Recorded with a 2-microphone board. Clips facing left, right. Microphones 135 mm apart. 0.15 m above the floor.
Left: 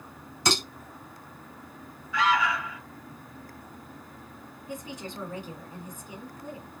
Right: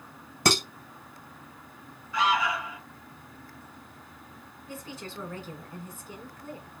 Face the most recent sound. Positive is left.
turn(degrees=15)  # may be behind; listen again after turning